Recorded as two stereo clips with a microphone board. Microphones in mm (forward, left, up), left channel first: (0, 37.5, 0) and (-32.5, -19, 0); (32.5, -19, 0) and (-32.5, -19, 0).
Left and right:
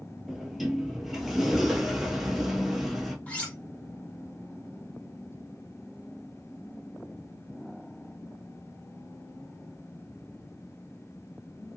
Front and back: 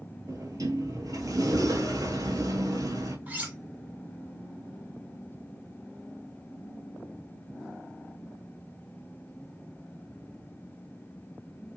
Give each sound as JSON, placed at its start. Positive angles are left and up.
{"t": 0.3, "sound": "a sliding door", "azimuth_deg": 155, "distance_m": 0.7}
{"t": 3.3, "sound": "cutlery clinking", "azimuth_deg": 125, "distance_m": 1.1}